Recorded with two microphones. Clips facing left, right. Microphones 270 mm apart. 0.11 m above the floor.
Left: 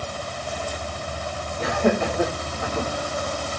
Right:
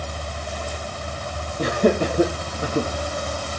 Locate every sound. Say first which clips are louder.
1.6 s laughter: right 3 dB; 40° right (ahead or behind), 4 m